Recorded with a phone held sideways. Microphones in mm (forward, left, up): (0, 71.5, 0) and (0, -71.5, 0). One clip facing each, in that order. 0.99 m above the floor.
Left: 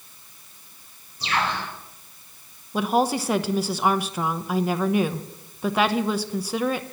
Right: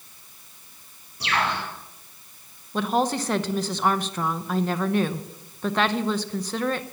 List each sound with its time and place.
1.2 s a bird: 80° right, 6 m
2.7 s a woman speaking: 10° left (ahead or behind), 0.8 m